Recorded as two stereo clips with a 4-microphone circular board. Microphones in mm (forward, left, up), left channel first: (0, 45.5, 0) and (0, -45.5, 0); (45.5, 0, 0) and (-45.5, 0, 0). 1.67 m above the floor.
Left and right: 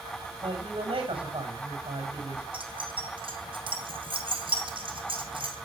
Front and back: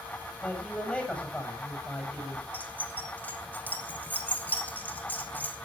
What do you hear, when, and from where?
0.4 s a man speaking: 75° right, 8 m
2.5 s keys jangling: 70° right, 3.5 m